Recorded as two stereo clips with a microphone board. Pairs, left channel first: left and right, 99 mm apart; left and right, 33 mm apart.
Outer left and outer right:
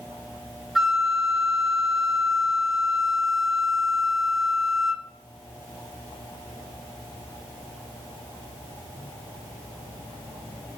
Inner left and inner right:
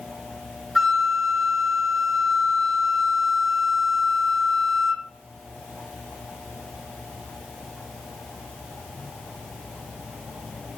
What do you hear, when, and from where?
0.8 s a flute: centre (ahead or behind), 1.0 m